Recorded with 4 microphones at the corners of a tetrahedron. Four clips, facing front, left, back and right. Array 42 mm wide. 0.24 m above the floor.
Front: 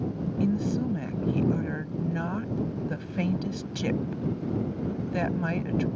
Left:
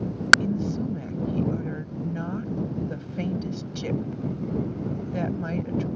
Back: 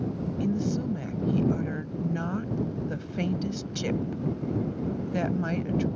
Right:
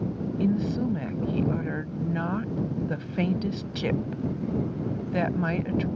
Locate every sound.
0.4 s a woman speaking: 70° right